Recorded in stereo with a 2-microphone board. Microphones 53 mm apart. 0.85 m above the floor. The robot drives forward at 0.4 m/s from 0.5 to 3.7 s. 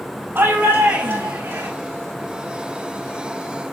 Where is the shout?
45° right (ahead or behind), 5 m; by 1.7 s 50° right (ahead or behind), 5 m.